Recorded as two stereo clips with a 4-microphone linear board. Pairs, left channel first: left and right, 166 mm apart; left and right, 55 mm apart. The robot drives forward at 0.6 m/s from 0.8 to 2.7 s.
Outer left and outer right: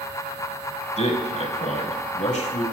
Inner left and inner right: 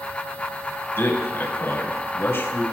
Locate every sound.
1.0 s a man speaking: 40° left (ahead or behind), 2 m; by 2.6 s 45° left (ahead or behind), 2.0 m